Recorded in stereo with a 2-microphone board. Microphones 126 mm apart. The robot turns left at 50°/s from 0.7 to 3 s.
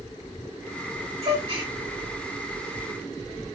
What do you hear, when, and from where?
1.2 s a gasp: 55° right (ahead or behind), 1.6 m; by 1.7 s 35° right (ahead or behind), 1.6 m